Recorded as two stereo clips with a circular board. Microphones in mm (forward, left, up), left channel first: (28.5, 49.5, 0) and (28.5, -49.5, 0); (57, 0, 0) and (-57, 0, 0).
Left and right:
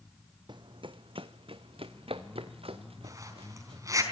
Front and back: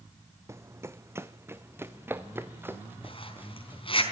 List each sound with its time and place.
0.5 s running footsteps: 120° right, 0.7 m; by 3.8 s 110° right, 3 m
3.0 s a zipper: 35° right, 4 m